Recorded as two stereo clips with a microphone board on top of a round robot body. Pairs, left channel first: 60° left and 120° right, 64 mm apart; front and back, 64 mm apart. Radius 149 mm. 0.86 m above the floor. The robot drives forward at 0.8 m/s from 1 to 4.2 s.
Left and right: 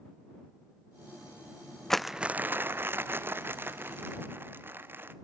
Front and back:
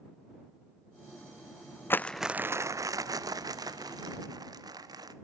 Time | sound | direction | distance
1.9 | crumpling | 20° right | 0.5 m